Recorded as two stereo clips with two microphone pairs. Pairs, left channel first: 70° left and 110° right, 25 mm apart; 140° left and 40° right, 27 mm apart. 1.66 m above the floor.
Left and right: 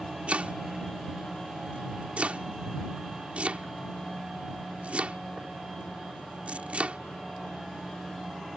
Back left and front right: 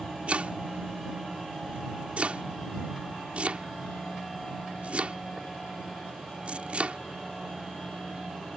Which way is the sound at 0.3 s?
75° right.